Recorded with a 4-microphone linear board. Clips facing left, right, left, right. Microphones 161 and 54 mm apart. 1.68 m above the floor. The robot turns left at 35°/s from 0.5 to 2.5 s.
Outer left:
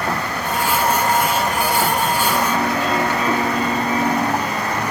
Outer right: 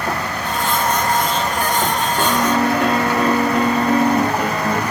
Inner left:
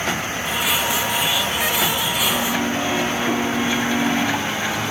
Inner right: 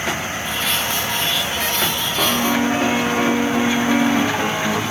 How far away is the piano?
About 3 m.